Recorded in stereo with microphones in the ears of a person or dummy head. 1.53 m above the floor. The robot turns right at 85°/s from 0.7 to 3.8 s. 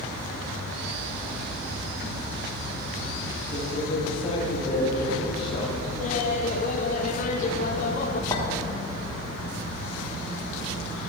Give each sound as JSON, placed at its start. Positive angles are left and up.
{"t": 3.5, "sound": "a man speaking", "side_deg": 5, "distance_m": 2.5}
{"t": 6.0, "sound": "laughter", "side_deg": 40, "distance_m": 0.8}
{"t": 8.3, "sound": "a clink", "side_deg": 15, "distance_m": 2.5}